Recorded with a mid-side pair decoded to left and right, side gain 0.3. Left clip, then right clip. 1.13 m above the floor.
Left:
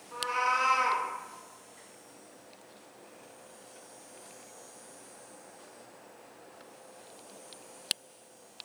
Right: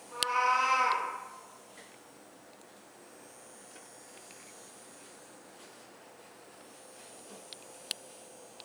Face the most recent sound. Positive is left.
turn(degrees=15)